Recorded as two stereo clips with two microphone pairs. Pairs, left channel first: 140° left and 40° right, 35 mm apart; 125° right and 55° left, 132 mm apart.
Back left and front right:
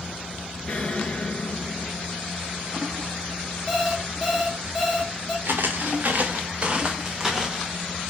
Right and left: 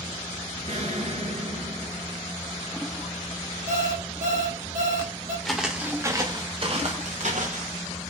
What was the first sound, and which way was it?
An explosion, 85° left.